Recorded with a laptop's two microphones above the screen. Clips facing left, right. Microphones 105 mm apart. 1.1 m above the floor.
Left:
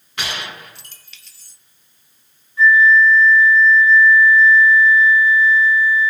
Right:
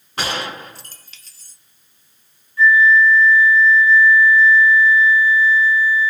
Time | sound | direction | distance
0.2 | a gunshot | 40° right (ahead or behind) | 0.5 m
2.6 | a flute | 20° left (ahead or behind) | 1.6 m